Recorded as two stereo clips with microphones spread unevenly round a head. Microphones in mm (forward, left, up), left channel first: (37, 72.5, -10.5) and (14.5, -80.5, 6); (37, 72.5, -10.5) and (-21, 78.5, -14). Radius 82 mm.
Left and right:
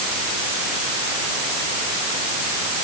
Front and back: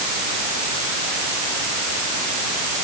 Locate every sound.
Only background noise.